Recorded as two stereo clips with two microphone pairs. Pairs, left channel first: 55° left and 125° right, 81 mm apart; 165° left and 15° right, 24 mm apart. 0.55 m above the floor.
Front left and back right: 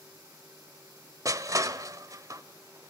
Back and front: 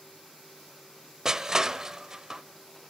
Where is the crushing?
80° right, 0.8 m.